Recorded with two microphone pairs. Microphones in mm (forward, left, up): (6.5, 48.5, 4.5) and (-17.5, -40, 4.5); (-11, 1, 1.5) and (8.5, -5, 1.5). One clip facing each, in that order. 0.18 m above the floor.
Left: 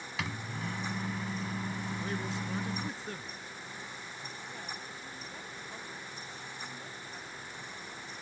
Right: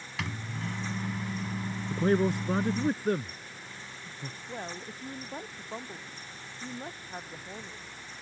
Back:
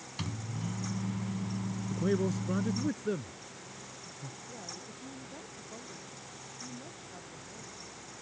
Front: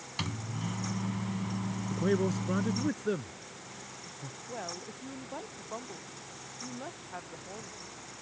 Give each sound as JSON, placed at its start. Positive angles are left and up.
{"t": 0.2, "sound": "a microwave", "azimuth_deg": -10}
{"t": 1.9, "sound": "a man speaking", "azimuth_deg": -90}
{"t": 4.5, "sound": "a woman speaking", "azimuth_deg": -60}